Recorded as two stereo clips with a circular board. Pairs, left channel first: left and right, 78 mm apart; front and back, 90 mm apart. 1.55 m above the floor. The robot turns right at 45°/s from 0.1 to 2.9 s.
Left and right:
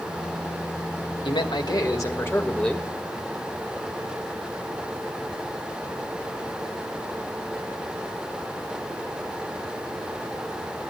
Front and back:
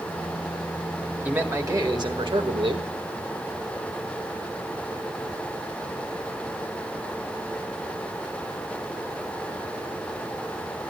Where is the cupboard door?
I don't hear a cupboard door.